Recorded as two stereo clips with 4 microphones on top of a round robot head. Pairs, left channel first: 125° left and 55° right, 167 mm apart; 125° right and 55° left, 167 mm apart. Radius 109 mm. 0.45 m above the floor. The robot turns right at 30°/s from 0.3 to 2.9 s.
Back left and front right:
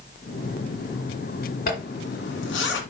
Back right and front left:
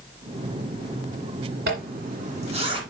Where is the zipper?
85° left, 2 m; by 2.8 s 120° left, 2 m.